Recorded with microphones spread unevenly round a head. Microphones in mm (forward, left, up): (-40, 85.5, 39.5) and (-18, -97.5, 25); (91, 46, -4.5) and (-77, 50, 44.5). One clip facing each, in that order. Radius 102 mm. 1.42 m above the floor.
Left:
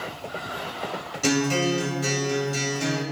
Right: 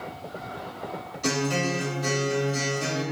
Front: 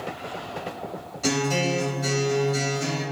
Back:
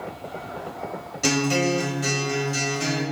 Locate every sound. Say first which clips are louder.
1.2 s a guitar: left 4 dB, back 2 dB; 125° left, 1.6 m